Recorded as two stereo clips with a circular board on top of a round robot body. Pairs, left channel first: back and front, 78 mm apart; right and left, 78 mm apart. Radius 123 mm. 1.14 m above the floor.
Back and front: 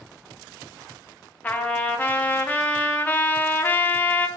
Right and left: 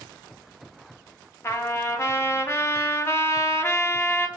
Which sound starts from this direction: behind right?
A trumpet, at 1.4 s.